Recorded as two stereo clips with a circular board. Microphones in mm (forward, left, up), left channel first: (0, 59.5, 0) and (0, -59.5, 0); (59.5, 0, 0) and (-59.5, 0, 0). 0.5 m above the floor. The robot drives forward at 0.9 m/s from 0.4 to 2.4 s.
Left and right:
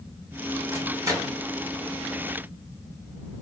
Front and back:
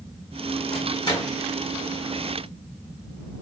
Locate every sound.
0.7 s a microwave: 30° right, 1.8 m; by 1.4 s 45° right, 1.4 m